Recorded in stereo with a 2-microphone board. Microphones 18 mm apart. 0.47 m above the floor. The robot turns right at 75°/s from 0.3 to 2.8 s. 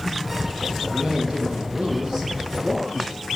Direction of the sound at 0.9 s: 140° right.